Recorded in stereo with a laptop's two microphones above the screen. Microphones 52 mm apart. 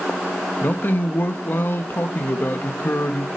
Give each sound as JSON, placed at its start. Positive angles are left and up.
{"t": 0.6, "sound": "a man speaking", "side_deg": 45, "distance_m": 1.5}